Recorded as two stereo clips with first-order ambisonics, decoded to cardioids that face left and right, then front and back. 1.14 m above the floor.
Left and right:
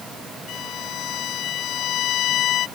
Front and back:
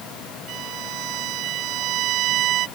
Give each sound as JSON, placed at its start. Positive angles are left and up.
{"t": 0.5, "sound": "a violin", "azimuth_deg": 140}